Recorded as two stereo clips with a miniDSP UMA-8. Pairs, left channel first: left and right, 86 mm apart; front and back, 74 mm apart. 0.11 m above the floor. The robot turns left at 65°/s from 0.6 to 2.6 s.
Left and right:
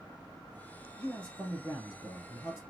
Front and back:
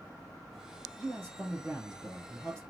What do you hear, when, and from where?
1.0 s a man speaking: 170° left, 1.6 m; by 2.6 s 65° left, 1.6 m